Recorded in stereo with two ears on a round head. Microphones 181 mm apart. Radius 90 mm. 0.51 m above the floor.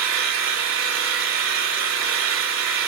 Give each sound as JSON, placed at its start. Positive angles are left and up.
{"t": 0.0, "sound": "an engine running", "side_deg": -70, "distance_m": 6.0}